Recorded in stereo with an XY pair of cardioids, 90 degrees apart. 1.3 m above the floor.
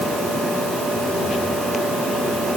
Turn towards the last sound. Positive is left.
No sound to turn to.